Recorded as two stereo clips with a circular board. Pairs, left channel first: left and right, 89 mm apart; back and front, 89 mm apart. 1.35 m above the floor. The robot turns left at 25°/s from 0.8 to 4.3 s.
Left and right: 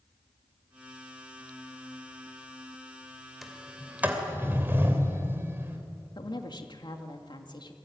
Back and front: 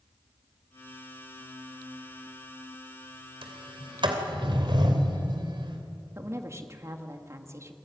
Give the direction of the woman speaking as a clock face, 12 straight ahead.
10 o'clock.